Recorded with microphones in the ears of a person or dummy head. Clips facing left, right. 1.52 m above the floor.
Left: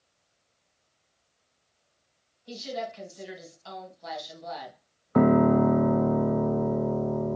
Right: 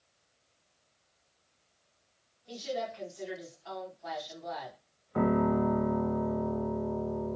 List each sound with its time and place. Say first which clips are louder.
2.5 s a woman speaking: left 1 dB; 50° left (ahead or behind), 2.5 m
5.2 s a piano: left 7 dB; 65° left (ahead or behind), 0.6 m